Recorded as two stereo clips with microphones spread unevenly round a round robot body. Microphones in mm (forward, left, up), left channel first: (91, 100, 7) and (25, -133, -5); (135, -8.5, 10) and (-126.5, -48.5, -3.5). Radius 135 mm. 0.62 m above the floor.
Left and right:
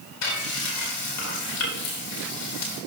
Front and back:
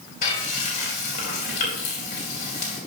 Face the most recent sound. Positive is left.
turn(degrees=70)